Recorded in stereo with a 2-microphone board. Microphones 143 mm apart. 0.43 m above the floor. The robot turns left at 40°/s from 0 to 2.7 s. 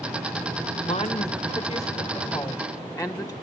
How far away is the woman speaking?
About 1.5 m.